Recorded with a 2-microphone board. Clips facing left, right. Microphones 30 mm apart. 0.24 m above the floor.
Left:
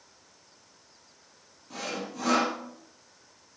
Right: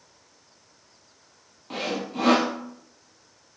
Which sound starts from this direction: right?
Sawing, at 1.7 s.